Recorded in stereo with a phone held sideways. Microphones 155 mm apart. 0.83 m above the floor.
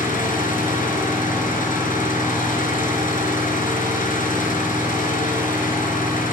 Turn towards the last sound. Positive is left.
turn(degrees=60)  # may be behind; listen again after turning